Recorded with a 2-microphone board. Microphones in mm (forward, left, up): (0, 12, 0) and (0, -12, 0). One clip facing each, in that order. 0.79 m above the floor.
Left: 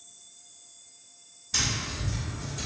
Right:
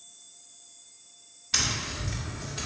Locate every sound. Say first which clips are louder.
1.5 s tapping: right 1 dB; 65° right (ahead or behind), 1.3 m